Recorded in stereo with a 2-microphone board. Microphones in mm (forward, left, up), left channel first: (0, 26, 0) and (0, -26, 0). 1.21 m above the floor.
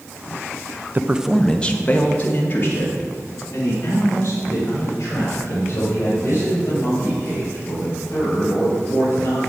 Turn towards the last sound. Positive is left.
turn(degrees=55)  # may be behind; listen again after turning